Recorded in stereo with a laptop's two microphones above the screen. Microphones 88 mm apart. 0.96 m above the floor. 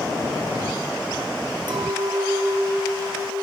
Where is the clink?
55° right (ahead or behind), 0.5 m.